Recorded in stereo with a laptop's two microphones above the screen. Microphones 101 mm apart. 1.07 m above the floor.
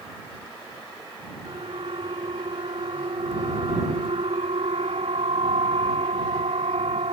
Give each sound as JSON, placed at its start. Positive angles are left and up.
{"t": 1.4, "sound": "a siren", "side_deg": -65}